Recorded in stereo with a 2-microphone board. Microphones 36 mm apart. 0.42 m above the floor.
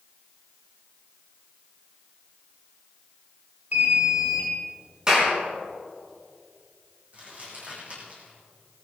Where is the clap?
25° right (ahead or behind), 4.5 m.